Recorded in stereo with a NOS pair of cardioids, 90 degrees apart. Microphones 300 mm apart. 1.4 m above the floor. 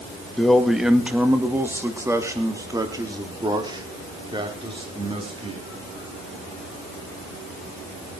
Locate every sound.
0.4 s a man speaking: straight ahead, 1.8 m; by 5.6 s 20° right, 4.5 m